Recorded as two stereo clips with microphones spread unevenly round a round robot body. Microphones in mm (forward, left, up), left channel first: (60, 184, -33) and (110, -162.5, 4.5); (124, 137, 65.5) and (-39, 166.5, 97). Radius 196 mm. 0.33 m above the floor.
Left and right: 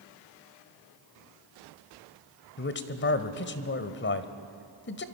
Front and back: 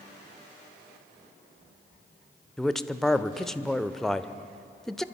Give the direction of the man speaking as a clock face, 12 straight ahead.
10 o'clock.